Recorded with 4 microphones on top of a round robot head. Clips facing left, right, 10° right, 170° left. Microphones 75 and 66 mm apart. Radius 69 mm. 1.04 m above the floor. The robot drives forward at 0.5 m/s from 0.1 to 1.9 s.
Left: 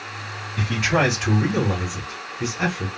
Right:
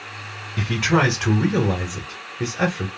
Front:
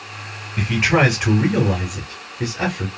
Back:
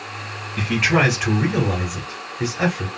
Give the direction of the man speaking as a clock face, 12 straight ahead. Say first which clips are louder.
Right 1 dB, front 1 dB; 3 o'clock.